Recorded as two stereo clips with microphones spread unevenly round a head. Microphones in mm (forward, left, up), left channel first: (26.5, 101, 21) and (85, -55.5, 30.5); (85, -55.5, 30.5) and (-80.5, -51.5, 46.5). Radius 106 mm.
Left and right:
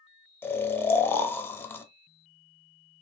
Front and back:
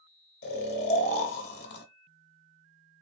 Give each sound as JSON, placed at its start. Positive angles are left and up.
{"t": 0.4, "sound": "snoring", "azimuth_deg": 30, "distance_m": 0.5}